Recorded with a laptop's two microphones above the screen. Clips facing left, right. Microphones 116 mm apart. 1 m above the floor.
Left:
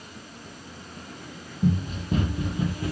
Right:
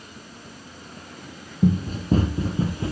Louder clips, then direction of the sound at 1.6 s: Right 4 dB; 40° right (ahead or behind).